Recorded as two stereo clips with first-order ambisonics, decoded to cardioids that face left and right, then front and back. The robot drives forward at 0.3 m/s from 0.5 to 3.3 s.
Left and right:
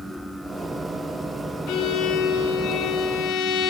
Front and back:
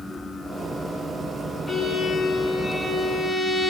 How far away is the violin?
About 2 m.